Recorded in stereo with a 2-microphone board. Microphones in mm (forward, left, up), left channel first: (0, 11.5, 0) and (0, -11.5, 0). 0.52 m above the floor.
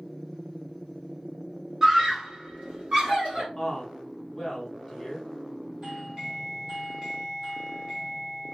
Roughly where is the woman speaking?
Centre.